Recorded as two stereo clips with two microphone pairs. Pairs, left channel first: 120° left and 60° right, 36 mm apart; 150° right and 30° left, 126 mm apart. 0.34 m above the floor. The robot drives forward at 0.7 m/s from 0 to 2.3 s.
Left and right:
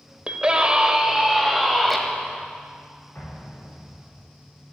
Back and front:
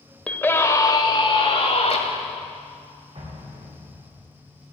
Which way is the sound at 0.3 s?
80° right.